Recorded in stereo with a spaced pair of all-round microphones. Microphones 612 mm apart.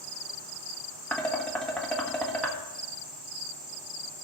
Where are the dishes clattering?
Centre (ahead or behind), 1.5 m.